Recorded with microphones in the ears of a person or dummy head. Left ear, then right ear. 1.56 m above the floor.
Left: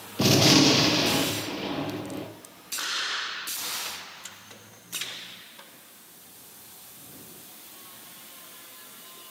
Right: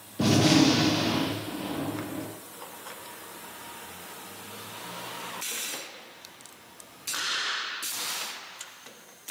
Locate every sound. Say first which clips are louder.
0.2 s a gunshot: left 3 dB; 25° left (ahead or behind), 1.2 m